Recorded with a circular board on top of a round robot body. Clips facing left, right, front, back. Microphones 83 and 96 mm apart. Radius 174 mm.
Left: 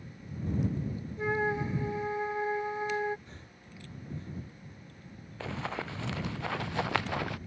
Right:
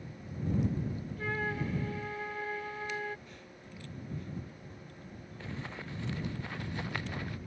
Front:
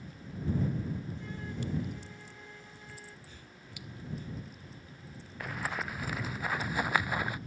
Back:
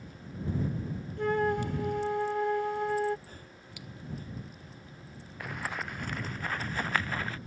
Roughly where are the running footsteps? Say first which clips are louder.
Left 7 dB, even; left.